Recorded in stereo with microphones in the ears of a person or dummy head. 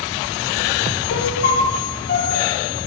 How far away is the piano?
About 4.5 m.